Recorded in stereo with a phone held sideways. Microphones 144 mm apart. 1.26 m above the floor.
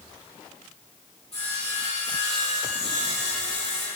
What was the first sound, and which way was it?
Sawing, 45° left (ahead or behind).